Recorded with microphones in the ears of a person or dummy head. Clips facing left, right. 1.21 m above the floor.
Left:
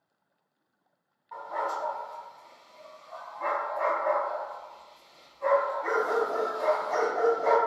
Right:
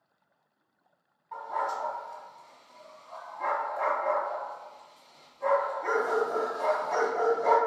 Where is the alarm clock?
No alarm clock in this recording.